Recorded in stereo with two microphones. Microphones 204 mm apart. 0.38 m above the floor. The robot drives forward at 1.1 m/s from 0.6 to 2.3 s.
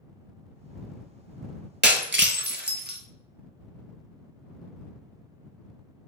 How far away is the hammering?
I don't hear hammering.